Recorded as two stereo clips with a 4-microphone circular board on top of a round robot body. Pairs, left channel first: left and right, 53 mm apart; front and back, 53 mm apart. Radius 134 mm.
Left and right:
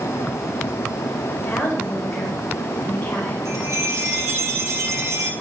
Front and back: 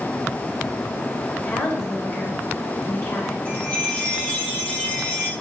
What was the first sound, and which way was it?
A woman speaking, 35° left.